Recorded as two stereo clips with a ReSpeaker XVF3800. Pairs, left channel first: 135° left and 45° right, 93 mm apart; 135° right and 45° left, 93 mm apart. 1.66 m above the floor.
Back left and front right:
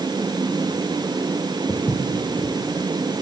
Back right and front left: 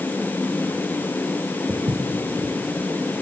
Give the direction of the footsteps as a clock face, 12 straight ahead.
10 o'clock.